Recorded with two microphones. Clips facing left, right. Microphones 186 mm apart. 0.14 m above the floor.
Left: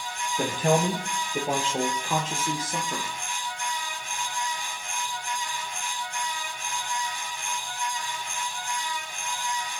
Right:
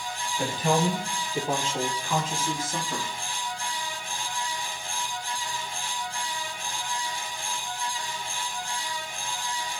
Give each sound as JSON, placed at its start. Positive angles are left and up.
{"t": 0.4, "sound": "a man speaking", "side_deg": 50, "distance_m": 4.0}